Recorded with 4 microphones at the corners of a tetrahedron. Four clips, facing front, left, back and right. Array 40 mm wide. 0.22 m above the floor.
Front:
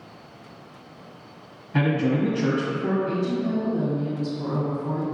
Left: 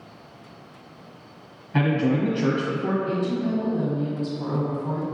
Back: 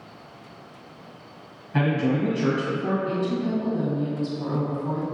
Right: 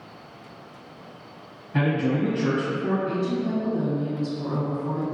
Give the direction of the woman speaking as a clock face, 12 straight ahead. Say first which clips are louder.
Left 1 dB, even; 7 o'clock.